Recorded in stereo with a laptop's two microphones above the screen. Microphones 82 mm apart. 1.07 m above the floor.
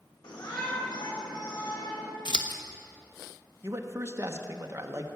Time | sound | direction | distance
0.2 | a shout | 70° left (ahead or behind) | 4 m
2.2 | scissors | 70° left (ahead or behind) | 1.0 m
3.6 | a man speaking | 35° right (ahead or behind) | 0.9 m